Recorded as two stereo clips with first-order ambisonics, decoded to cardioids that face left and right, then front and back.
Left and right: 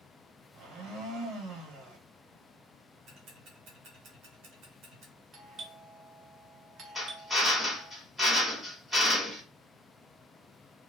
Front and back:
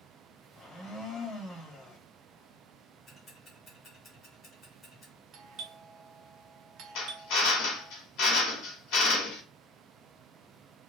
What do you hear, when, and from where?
0.5 s a blender: 70° right, 1.4 m
3.1 s ticking: 70° right, 1.4 m
5.3 s a doorbell: 140° right, 0.5 m
7.0 s a drill: straight ahead, 1.1 m